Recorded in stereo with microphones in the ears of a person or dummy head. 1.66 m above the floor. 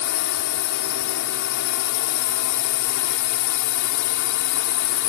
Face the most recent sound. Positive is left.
turn(degrees=80)